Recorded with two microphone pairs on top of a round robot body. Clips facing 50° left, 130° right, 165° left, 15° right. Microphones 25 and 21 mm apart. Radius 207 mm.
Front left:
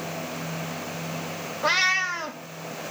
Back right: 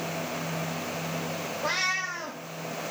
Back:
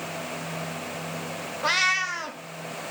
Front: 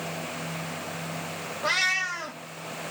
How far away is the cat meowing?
About 0.6 m.